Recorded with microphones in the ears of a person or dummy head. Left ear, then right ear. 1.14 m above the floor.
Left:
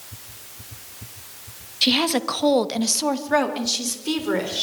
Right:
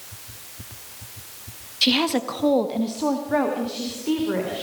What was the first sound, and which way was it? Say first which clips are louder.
A woman speaking: left 1 dB; centre (ahead or behind).